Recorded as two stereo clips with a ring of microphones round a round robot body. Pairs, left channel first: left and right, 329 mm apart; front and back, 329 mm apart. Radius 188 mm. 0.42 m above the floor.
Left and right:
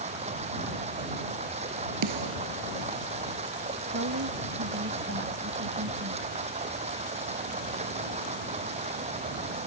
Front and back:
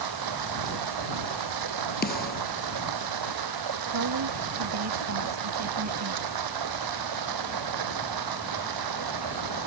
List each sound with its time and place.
0.0 s running water: 165° right
2.0 s a snare drum: 65° right
3.9 s a woman speaking: 145° right